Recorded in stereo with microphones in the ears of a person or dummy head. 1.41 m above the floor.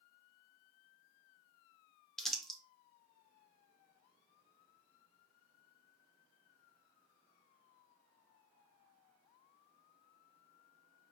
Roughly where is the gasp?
I don't hear a gasp.